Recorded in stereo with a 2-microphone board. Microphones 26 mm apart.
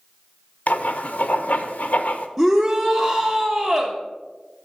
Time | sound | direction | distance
0.7 | writing | 70° left (ahead or behind) | 0.6 m
2.4 | a shout | 5° right (ahead or behind) | 0.9 m